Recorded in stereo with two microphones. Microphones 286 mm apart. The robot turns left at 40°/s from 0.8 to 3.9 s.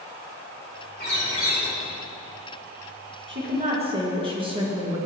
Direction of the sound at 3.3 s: 40° right (ahead or behind).